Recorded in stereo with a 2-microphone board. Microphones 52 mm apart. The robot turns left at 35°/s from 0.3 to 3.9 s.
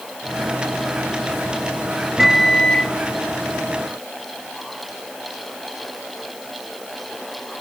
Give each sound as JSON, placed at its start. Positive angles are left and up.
{"t": 2.2, "sound": "a microwave", "side_deg": -5, "distance_m": 1.1}